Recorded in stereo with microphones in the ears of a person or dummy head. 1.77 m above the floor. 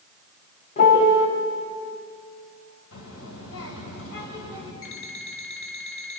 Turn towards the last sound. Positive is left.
turn(degrees=75)  # may be behind; listen again after turning